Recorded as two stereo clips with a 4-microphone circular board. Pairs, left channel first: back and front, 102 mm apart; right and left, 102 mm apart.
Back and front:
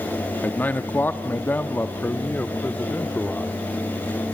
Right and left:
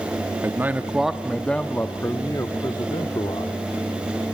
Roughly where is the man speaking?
Behind left.